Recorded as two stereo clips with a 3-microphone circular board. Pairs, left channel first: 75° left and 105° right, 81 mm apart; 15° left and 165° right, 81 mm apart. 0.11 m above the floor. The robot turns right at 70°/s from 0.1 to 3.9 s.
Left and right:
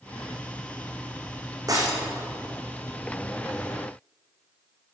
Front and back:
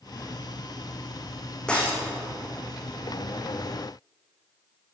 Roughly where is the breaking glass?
Ahead right.